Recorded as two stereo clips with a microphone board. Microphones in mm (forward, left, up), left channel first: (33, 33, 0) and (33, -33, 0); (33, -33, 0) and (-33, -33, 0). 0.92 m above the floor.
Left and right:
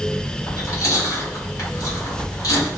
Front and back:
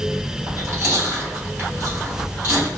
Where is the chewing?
125° left, 1.8 m.